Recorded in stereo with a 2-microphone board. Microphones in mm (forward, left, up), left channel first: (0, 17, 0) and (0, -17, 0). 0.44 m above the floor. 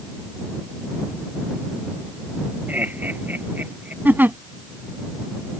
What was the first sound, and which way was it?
Laughter, 55° right (ahead or behind).